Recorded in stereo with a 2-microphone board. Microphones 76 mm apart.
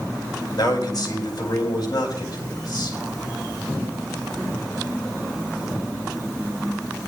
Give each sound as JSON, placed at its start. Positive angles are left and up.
{"t": 0.6, "sound": "a man speaking", "side_deg": 60, "distance_m": 4.0}